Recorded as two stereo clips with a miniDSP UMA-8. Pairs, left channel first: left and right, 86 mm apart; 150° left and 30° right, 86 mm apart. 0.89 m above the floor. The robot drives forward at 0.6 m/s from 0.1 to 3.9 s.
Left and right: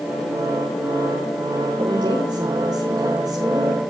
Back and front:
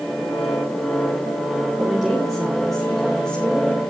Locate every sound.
1.8 s a woman speaking: 110° right, 3 m; by 3.8 s 130° right, 3.5 m